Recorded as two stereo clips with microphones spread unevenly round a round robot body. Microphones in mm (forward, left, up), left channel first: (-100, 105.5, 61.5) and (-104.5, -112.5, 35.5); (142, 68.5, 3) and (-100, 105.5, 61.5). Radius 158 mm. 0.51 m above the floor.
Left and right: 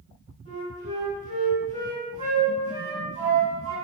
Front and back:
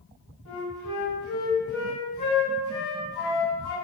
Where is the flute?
25° right, 1.6 m.